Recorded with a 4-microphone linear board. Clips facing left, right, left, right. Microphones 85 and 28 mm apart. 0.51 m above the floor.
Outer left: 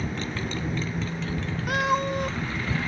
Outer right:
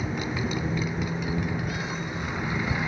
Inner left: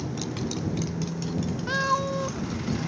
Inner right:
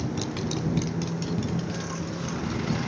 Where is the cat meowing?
75° left (ahead or behind).